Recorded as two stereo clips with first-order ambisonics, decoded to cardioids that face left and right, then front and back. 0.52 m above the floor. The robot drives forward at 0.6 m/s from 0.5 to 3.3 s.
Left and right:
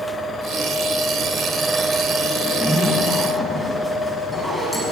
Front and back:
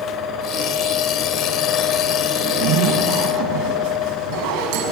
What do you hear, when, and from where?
2.4 s a zipper: straight behind, 4.5 m